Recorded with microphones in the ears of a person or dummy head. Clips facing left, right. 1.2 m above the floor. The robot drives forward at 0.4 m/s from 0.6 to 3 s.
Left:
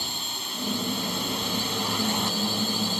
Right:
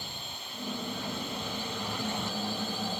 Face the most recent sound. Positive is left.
turn(degrees=85)